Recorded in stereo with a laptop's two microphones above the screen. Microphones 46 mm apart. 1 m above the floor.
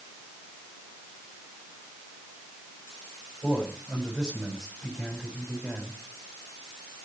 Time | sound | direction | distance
3.4 | a man speaking | 10° right (ahead or behind) | 7.5 m